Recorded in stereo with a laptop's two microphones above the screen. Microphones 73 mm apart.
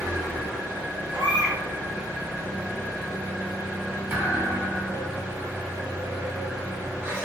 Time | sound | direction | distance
0.0 | an engine running | 30° right (ahead or behind) | 1.5 m
1.1 | a baby crying | 80° right | 1.3 m
4.1 | a thud | 30° right (ahead or behind) | 1.2 m